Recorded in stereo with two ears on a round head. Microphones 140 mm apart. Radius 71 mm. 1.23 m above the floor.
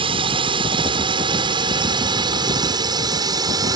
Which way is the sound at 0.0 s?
35° right (ahead or behind).